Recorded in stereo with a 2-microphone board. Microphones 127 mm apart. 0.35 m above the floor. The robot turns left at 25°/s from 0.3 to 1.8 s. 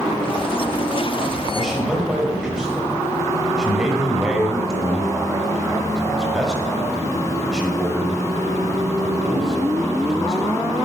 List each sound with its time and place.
1.6 s a man speaking: centre (ahead or behind), 1.8 m; by 10.5 s 5° right (ahead or behind), 1.8 m